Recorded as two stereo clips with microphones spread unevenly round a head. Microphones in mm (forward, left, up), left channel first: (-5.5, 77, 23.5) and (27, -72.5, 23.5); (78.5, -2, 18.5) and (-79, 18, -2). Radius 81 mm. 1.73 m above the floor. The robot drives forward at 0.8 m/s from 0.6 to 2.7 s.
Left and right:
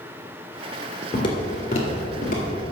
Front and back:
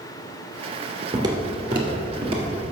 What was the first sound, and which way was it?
Footsteps, 120° left.